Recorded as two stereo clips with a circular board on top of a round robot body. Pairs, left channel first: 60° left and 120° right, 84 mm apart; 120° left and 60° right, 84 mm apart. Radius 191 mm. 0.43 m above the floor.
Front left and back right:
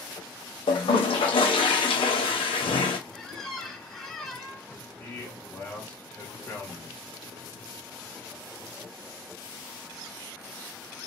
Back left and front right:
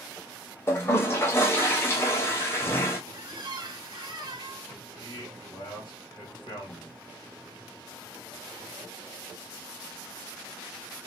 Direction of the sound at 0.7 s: 60° left.